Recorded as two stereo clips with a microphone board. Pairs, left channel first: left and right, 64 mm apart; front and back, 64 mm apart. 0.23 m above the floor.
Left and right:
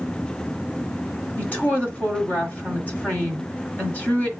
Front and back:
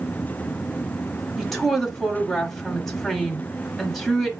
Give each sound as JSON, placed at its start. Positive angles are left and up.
{"t": 1.4, "sound": "a woman speaking", "azimuth_deg": 80, "distance_m": 1.1}